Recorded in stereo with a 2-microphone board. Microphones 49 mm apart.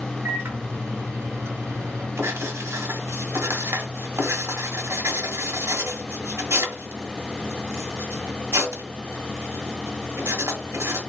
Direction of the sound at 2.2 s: 75° right (ahead or behind).